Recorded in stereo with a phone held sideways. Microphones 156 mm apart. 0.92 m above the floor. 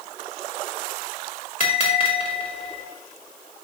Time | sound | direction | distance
1.6 | a bell | 55° left (ahead or behind) | 2.5 m